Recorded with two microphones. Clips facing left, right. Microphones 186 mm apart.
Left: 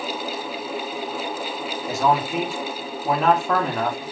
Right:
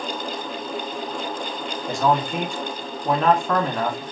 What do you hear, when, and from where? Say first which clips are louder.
1.9 s a man speaking: even; 5° left (ahead or behind), 1.4 m